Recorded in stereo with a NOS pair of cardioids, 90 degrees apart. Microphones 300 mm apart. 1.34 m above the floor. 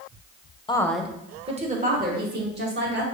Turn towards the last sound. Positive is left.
turn(degrees=-40)